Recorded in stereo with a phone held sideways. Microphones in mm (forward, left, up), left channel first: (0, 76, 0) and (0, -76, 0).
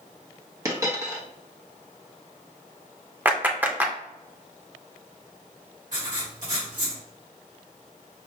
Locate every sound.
0.7 s a dropped coin: 20° right (ahead or behind), 0.9 m
3.2 s a clap: 15° right (ahead or behind), 0.6 m
5.9 s writing: 60° right (ahead or behind), 1.7 m